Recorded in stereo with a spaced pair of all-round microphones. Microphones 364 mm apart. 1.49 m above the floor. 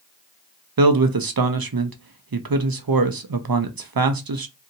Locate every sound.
0.8 s a man speaking: 70° right (ahead or behind), 0.5 m